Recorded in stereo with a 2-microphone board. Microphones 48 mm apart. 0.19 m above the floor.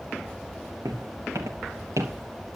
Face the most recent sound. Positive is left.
turn(degrees=-85)